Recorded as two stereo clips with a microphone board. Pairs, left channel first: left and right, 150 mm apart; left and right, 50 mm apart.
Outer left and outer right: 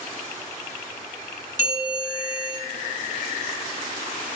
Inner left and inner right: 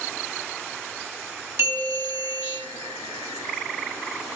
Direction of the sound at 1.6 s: 60° right (ahead or behind).